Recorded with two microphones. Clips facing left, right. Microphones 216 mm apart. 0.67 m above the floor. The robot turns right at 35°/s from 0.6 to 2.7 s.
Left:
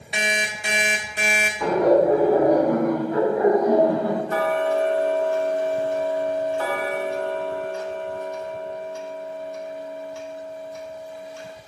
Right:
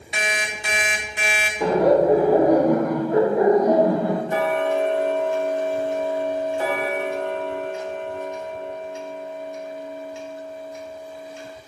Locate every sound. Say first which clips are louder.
0.1 s an alarm clock: left 1 dB; 25° left, 0.7 m; by 1.5 s 55° left, 0.7 m
1.6 s laughter: right 1 dB; 130° right, 0.8 m; by 4.2 s 95° right, 0.8 m
4.3 s ticking: even; 20° right (ahead or behind), 0.5 m